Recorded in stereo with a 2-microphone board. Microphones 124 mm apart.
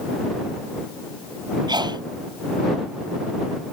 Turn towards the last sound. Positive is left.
turn(degrees=-35)  # may be behind; listen again after turning